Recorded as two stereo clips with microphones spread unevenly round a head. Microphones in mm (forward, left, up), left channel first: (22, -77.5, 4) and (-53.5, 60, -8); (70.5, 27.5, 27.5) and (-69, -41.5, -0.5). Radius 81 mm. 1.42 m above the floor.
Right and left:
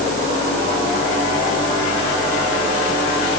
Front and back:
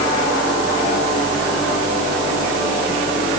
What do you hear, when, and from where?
Only background noise.